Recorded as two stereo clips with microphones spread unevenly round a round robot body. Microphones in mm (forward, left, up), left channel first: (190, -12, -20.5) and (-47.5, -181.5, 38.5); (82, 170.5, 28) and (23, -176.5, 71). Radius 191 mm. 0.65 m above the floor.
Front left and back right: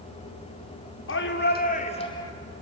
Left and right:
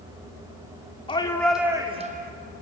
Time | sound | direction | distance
1.1 | a shout | 10° left | 2 m